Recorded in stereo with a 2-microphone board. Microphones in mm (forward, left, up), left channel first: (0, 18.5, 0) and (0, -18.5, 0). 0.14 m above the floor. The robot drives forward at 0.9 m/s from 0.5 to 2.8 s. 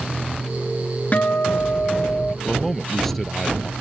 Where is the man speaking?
5° left (ahead or behind).